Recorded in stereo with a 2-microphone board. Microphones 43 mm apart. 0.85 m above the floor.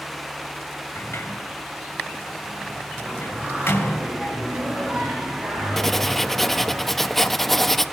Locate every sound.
0.9 s a sliding door: 75° left (ahead or behind), 2 m
3.0 s singing: 30° right (ahead or behind), 9.5 m
5.8 s writing: 5° left (ahead or behind), 0.6 m